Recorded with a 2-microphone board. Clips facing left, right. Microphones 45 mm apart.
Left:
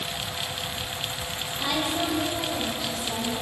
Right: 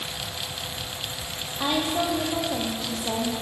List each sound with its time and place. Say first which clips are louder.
1.6 s a woman speaking: right 2 dB; 30° right (ahead or behind), 5.5 m; by 3.3 s 40° right (ahead or behind), 6.5 m